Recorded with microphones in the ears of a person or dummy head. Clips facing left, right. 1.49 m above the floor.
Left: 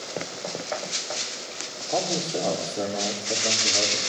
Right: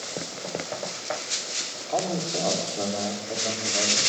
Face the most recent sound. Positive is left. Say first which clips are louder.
# left 1 dB
turn(degrees=15)  # may be behind; listen again after turning